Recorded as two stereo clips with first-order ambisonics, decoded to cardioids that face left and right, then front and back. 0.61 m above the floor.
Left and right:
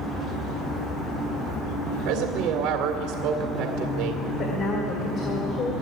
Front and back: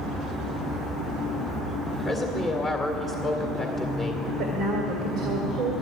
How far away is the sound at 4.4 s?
About 1.8 m.